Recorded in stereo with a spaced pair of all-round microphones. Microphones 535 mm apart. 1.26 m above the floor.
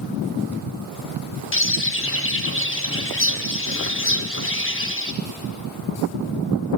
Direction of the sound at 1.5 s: 25° left (ahead or behind).